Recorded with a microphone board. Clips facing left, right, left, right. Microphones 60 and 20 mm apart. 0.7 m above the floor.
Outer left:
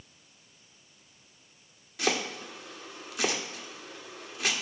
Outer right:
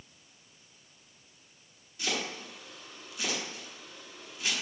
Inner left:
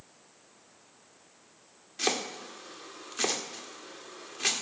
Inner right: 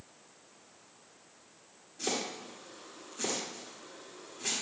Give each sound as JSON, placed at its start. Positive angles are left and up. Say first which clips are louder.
{"t": 2.0, "sound": "chopping", "louder": "outer left 5 dB, inner left 4 dB", "side_deg": 70, "distance_m": 1.7}